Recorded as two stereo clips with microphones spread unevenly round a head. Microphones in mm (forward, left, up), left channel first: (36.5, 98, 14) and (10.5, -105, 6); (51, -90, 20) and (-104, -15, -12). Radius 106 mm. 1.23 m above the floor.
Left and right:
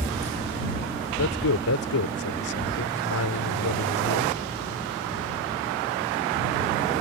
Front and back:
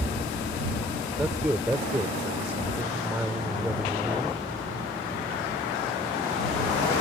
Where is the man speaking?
70° left.